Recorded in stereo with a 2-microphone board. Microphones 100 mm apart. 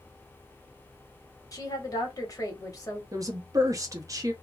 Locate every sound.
1.5 s a woman speaking: 40° left (ahead or behind), 1.1 m
3.1 s a woman speaking: 35° right (ahead or behind), 0.7 m